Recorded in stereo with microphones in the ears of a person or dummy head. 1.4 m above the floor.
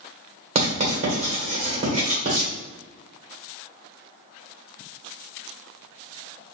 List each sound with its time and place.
0.6 s writing: 40° right (ahead or behind), 1.3 m